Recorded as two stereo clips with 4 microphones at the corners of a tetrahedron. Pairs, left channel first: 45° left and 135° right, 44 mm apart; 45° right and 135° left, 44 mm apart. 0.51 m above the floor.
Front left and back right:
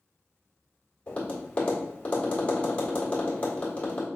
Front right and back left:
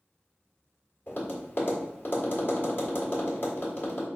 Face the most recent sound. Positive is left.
turn(degrees=-15)